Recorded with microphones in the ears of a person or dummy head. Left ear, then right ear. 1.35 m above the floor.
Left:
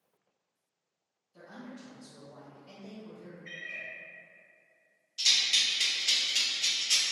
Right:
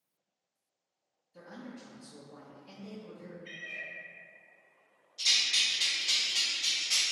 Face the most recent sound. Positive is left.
turn(degrees=70)  # may be behind; listen again after turning